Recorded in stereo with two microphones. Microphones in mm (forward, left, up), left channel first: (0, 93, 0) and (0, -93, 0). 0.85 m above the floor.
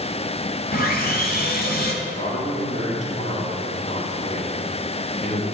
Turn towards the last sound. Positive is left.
turn(degrees=40)  # may be behind; listen again after turning